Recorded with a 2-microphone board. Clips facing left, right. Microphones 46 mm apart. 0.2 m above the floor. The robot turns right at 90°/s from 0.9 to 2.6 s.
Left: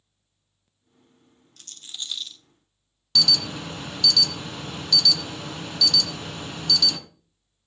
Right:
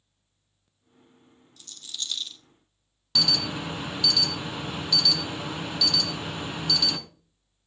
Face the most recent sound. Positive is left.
turn(degrees=-15)  # may be behind; listen again after turning